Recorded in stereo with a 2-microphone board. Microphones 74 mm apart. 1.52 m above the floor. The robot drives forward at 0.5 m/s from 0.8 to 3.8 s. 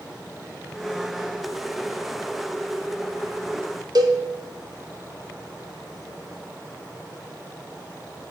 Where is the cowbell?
65° right (ahead or behind), 0.7 m.